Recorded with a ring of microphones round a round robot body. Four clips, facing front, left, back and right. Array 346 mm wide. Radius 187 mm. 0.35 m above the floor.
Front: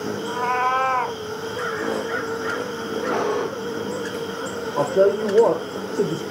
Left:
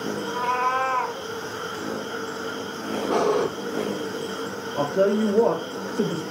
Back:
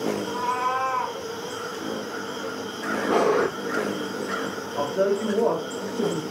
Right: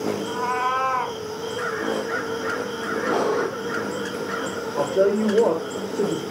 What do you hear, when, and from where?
0.3 s a cat meowing: 5° right, 1.2 m
3.1 s breathing: 165° left, 1.1 m
4.8 s a woman speaking: 20° right, 1.7 m